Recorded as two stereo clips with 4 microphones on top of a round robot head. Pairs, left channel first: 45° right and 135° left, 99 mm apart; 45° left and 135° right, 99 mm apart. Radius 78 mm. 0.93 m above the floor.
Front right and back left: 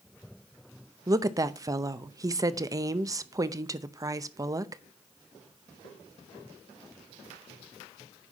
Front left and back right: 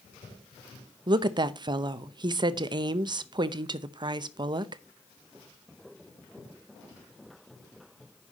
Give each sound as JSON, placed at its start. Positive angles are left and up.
{"t": 1.1, "sound": "a woman speaking", "azimuth_deg": -170, "distance_m": 0.7}